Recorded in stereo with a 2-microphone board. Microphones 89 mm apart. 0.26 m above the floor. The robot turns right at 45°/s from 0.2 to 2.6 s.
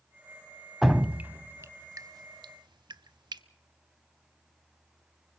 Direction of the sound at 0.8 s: 5° right (ahead or behind).